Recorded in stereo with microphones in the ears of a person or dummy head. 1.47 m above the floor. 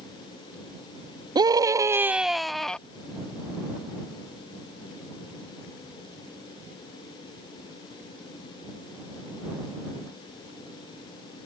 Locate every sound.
1.4 s a scream: 25° right (ahead or behind); by 2.8 s 5° left (ahead or behind)